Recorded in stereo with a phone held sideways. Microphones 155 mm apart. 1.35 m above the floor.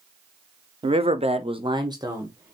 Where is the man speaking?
35° right (ahead or behind), 0.6 m; by 2.5 s 20° right (ahead or behind), 1.2 m.